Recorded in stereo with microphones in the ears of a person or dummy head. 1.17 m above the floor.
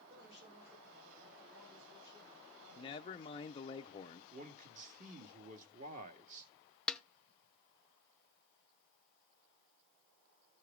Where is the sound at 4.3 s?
40° right (ahead or behind), 1.8 m.